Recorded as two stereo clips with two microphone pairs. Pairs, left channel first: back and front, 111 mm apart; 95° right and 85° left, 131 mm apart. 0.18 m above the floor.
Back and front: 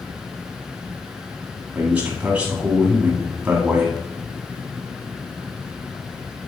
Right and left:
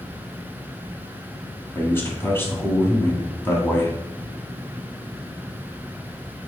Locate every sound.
1.8 s a man speaking: 60° right, 1.6 m